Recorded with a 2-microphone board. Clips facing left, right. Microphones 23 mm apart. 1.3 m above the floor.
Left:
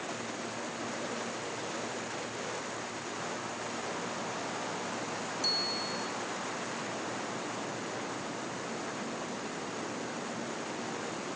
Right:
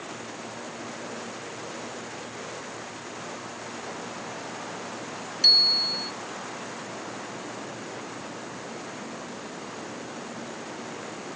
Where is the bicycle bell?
90° right.